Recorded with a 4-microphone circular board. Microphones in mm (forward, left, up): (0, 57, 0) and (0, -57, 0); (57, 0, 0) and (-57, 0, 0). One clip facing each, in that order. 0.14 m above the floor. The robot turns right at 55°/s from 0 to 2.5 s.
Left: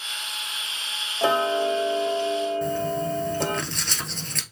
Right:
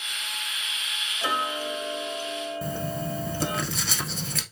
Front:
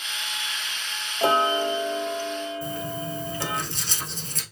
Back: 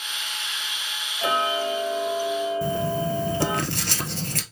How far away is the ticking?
About 1.0 m.